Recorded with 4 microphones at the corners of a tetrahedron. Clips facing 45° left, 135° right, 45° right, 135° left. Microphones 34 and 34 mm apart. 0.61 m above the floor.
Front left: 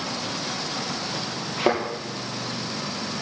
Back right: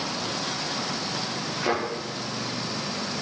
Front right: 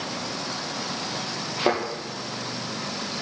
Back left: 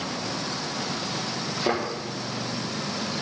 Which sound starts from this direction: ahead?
A thud, at 1.6 s.